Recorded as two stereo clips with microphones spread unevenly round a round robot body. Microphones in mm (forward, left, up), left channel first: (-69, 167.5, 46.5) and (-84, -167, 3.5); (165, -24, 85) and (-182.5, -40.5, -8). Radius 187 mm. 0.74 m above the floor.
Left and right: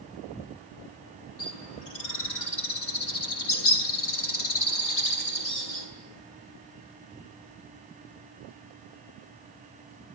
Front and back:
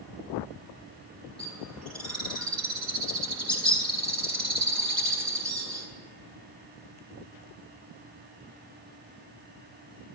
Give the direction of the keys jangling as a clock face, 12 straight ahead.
No keys jangling in this recording.